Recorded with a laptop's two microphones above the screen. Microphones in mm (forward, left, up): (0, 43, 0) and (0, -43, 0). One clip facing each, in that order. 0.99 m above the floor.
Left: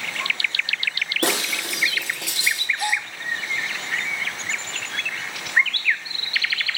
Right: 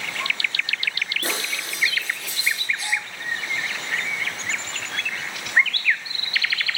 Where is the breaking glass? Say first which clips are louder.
Left 9 dB; 75° left (ahead or behind), 3.5 m.